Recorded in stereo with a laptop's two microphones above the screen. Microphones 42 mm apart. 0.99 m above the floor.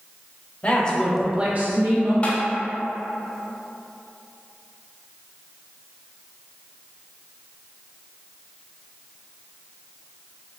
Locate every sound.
0.6 s a woman speaking: 30° left (ahead or behind), 1.0 m; by 2.1 s 65° right (ahead or behind), 1.2 m
2.2 s tapping: 30° left (ahead or behind), 0.9 m